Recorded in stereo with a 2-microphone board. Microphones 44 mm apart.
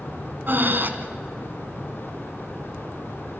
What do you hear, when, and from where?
0.5 s breathing: 50° right (ahead or behind), 1.7 m